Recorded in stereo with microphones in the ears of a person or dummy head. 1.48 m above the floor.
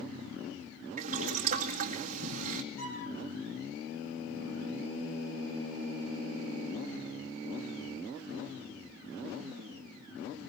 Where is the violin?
10° left (ahead or behind), 5.5 m.